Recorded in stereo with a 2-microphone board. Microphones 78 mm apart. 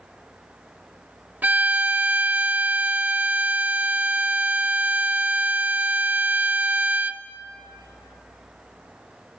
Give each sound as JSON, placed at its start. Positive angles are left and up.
{"t": 1.4, "sound": "a violin", "side_deg": -20, "distance_m": 0.6}